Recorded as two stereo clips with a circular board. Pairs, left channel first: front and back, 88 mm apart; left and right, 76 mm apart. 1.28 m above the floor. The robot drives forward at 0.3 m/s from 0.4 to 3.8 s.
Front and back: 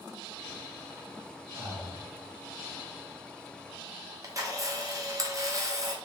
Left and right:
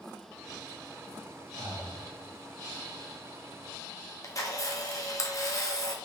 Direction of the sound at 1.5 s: 125° right.